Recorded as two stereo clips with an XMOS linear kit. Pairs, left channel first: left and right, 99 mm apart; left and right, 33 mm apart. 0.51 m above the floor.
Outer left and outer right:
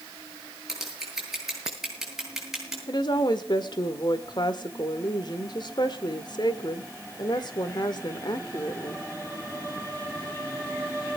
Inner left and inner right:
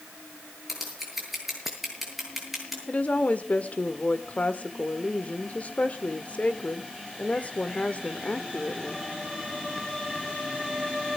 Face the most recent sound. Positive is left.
turn(degrees=50)  # may be behind; listen again after turning